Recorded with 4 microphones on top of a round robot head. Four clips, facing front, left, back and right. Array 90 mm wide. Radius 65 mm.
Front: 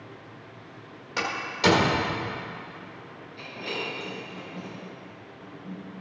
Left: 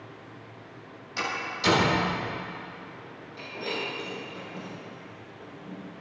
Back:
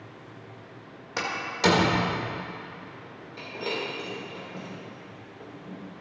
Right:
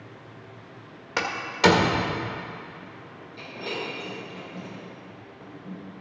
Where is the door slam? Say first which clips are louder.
Right 7 dB, even; 100° right, 1.5 m.